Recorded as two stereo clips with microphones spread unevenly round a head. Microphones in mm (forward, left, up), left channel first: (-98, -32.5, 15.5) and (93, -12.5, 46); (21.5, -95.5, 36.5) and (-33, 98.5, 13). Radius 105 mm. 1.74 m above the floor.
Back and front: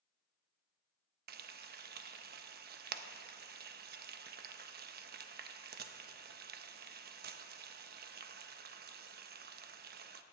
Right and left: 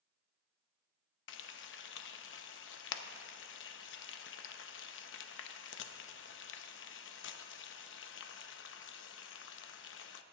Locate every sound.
1.3 s frying: 40° right, 0.5 m